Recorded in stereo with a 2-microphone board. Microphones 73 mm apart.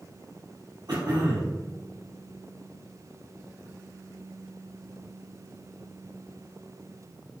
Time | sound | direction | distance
0.9 | throat clearing | 65° right (ahead or behind) | 3 m